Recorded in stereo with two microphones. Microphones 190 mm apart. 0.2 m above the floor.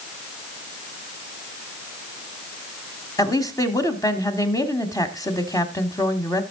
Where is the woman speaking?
20° left (ahead or behind), 1.2 m.